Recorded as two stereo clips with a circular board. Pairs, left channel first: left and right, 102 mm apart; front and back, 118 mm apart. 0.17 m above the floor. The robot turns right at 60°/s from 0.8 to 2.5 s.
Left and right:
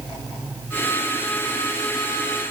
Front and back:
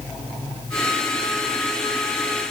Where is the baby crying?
No baby crying in this recording.